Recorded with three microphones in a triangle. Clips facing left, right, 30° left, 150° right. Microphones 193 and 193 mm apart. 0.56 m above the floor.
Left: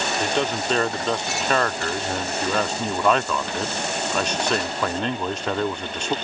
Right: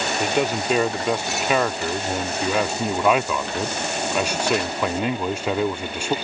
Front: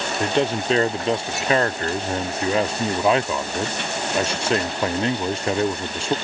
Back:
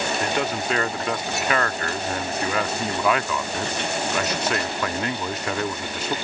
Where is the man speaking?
15° right.